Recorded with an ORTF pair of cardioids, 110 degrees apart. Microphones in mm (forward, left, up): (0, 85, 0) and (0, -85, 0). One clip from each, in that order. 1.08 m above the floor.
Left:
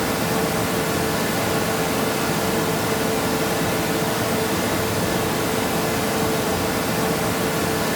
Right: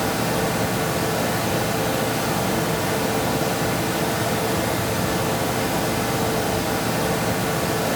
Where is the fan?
15° left, 1.2 m.